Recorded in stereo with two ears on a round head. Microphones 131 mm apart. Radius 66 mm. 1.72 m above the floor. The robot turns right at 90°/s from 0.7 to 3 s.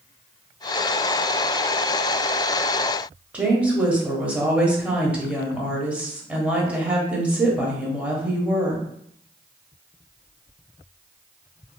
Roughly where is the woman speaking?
Centre.